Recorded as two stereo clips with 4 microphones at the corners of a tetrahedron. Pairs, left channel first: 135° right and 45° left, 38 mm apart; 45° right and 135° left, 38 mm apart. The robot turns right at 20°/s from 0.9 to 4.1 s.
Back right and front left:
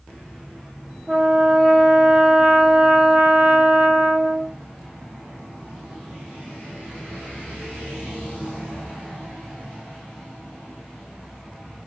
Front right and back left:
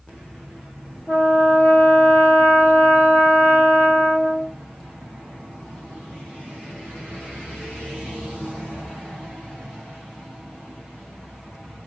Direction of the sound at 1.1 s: 55° right.